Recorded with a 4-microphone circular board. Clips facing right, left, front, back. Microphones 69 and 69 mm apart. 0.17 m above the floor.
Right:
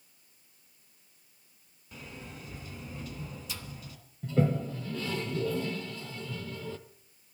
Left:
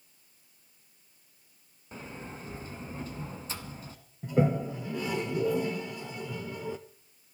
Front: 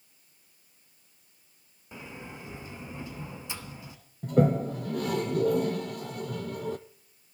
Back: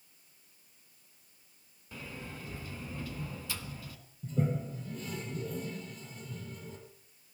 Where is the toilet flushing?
20° left, 0.8 m.